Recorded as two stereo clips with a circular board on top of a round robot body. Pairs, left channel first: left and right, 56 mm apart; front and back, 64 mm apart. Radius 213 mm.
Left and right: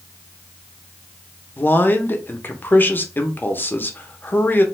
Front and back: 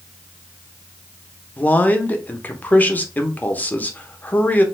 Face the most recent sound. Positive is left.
turn(degrees=55)